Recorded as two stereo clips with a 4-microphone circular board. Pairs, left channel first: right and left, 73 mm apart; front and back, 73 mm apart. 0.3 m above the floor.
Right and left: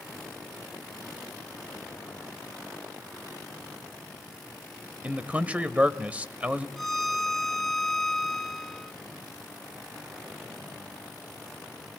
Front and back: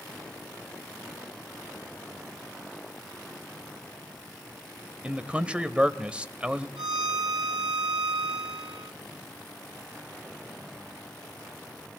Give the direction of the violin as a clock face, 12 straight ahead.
6 o'clock.